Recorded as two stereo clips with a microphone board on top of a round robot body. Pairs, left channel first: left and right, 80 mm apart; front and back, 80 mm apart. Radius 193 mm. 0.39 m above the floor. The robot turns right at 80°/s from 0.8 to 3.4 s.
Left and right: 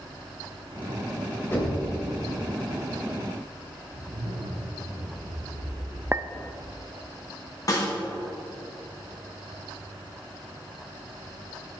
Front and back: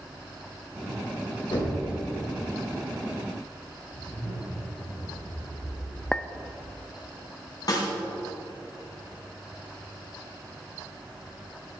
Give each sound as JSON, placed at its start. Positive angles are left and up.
{"t": 1.5, "sound": "knocking", "azimuth_deg": 25, "distance_m": 3.0}
{"t": 3.9, "sound": "a zipper", "azimuth_deg": -65, "distance_m": 3.0}
{"t": 6.1, "sound": "a clink", "azimuth_deg": -70, "distance_m": 0.6}
{"t": 7.7, "sound": "a snare drum", "azimuth_deg": 45, "distance_m": 3.0}